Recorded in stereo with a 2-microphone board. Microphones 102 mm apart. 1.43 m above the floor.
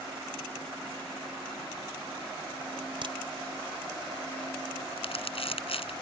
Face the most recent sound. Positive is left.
turn(degrees=70)  # may be behind; listen again after turning